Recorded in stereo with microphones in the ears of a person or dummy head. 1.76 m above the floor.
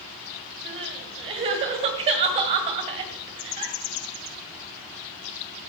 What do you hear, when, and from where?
0.7 s crying: 35° right (ahead or behind), 1.8 m